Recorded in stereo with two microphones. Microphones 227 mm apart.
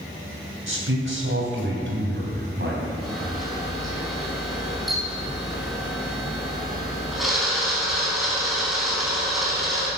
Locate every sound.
0.7 s a man speaking: 65° right (ahead or behind), 3 m; by 2.9 s 50° right (ahead or behind), 3.5 m
3.0 s a camera shutter: centre (ahead or behind), 4 m